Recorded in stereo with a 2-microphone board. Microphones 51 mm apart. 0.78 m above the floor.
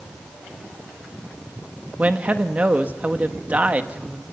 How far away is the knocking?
No knocking in this recording.